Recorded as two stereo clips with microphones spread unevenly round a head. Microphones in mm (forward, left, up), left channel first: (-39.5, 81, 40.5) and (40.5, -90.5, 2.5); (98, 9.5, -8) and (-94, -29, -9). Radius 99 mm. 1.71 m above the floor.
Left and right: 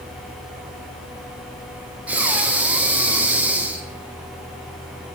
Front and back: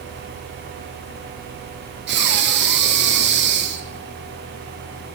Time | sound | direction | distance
2.1 | breathing | 155° right | 1.0 m